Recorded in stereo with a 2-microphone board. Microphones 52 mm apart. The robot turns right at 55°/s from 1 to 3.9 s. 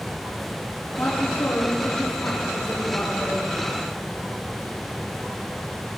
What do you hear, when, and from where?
1.0 s a woman speaking: 50° left, 3.5 m; by 3.4 s 175° right, 3.5 m